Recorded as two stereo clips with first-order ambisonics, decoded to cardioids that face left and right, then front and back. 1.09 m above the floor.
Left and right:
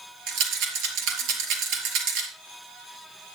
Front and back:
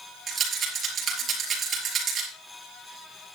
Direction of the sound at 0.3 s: 115° right.